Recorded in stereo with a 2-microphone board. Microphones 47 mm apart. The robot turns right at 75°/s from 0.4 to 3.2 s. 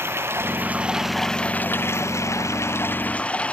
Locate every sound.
0.0 s running water: 55° right; by 3.5 s 155° left